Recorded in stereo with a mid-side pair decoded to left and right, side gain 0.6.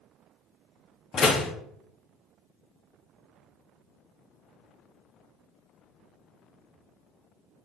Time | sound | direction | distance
1.1 | a door slam | 40° left | 1.3 m